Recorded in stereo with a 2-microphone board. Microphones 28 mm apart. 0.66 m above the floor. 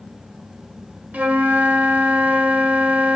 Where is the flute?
60° right (ahead or behind), 0.7 m.